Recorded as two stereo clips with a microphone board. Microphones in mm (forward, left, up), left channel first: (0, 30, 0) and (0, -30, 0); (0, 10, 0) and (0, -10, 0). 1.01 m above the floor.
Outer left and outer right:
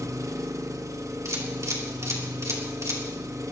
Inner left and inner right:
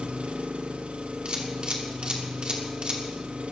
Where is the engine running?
65° right (ahead or behind), 1.0 m.